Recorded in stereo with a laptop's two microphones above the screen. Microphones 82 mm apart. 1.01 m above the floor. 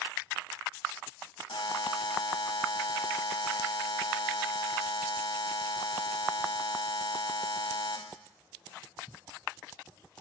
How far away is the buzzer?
About 0.7 m.